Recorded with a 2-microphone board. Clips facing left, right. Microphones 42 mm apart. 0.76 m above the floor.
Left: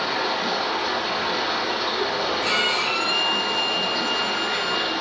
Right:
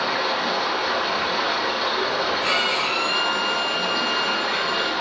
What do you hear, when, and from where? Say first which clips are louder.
0.0 s running water: right 1 dB; 65° right (ahead or behind), 1.5 m
2.4 s a violin: even; 55° right (ahead or behind), 1.8 m